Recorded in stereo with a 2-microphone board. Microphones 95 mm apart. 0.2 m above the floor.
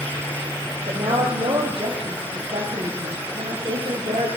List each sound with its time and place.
0.9 s a woman speaking: 75° right (ahead or behind), 6.5 m; by 4.3 s 80° right, 9 m